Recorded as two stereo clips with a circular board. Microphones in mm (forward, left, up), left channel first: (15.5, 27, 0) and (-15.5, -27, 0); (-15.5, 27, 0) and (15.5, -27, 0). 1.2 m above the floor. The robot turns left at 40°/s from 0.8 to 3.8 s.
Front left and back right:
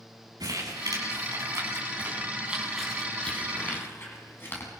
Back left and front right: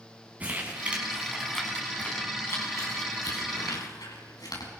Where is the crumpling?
125° right, 8 m; by 4.7 s 115° left, 8 m.